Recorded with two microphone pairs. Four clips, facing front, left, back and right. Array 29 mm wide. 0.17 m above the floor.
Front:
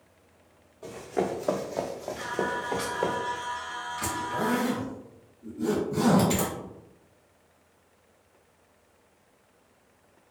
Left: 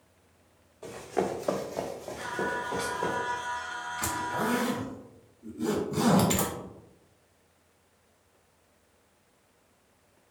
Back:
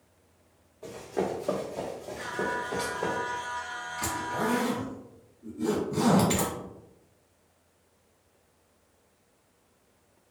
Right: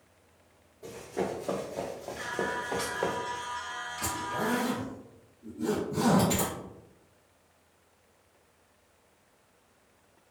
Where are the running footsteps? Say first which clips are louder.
Left 3 dB, front 2 dB; 80° left, 0.9 m; by 3.2 s 45° right, 1.2 m.